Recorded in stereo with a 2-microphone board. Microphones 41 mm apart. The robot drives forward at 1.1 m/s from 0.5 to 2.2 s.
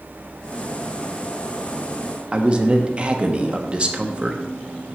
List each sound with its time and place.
2.3 s a man speaking: 25° right (ahead or behind), 0.9 m